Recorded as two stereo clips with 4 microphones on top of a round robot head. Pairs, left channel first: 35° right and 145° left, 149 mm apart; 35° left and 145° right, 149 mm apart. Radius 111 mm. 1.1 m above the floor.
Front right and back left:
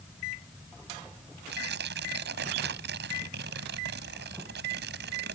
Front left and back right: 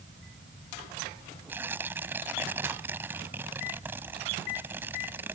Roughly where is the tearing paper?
Behind left.